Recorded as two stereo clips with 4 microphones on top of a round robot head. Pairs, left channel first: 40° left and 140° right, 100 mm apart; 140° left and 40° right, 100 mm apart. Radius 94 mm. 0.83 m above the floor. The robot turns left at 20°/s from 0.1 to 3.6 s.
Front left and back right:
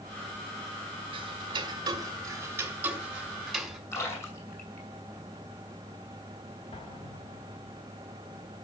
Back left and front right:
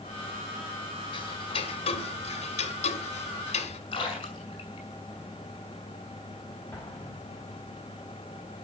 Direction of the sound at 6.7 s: 70° left.